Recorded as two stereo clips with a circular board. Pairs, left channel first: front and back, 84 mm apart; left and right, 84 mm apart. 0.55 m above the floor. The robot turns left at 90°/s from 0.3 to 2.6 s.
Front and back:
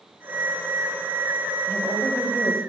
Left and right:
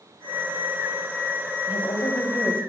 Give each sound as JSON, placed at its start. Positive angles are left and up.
{"t": 1.7, "sound": "a woman speaking", "azimuth_deg": 95, "distance_m": 3.0}